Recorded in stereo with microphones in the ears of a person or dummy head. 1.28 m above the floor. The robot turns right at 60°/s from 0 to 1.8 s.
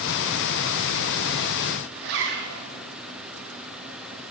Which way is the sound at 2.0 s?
55° right (ahead or behind).